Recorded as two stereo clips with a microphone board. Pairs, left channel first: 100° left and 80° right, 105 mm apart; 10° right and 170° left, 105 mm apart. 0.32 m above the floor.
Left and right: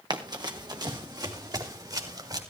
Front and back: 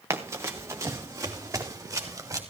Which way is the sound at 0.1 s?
125° right.